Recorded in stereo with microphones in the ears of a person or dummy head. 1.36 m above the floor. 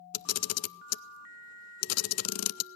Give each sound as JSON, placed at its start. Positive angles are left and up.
{"t": 0.1, "sound": "a camera shutter", "side_deg": 75, "distance_m": 0.5}